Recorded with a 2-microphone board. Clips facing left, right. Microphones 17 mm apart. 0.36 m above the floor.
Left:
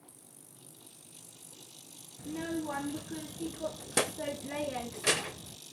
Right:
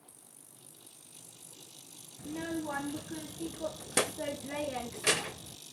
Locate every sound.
2.2 s a child speaking: 20° right (ahead or behind), 0.6 m